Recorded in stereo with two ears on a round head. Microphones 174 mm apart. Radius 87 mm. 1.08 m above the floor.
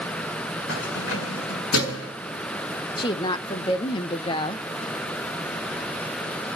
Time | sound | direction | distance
0.7 | keys jangling | 70° left (ahead or behind) | 7 m
3.0 | a woman speaking | 25° left (ahead or behind) | 0.9 m